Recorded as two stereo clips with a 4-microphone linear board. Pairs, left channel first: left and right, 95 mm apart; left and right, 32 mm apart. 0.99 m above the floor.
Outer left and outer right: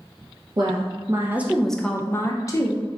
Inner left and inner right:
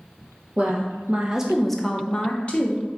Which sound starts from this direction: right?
A woman speaking, at 0.6 s.